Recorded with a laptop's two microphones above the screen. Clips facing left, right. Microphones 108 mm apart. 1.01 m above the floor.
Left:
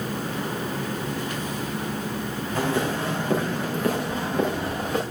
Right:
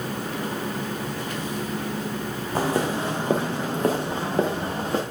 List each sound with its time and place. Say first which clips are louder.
2.5 s footsteps: right 1 dB; 35° right (ahead or behind), 3 m; by 5.0 s 40° right (ahead or behind), 5 m